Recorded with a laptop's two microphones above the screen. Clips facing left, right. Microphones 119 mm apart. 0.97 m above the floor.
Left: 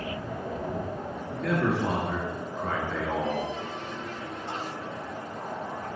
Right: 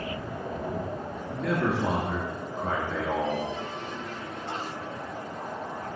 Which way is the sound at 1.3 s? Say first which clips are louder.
Even; 5° right (ahead or behind).